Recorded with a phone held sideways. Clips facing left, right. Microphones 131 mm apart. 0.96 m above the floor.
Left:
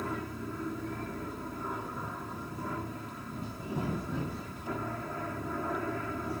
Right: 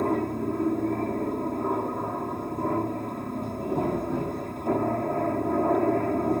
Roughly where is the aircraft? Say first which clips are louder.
Right 11 dB; right.